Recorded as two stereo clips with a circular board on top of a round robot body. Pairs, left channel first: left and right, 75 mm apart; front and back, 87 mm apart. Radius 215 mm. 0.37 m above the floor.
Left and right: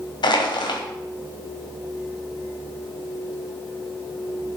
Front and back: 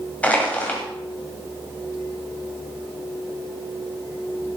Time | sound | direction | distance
0.2 | crushing | 75° left | 2 m